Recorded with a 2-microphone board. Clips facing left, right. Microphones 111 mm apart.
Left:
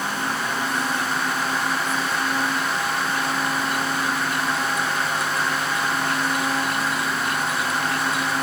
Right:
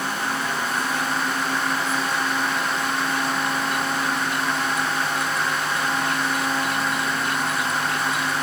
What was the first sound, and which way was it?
Only background noise.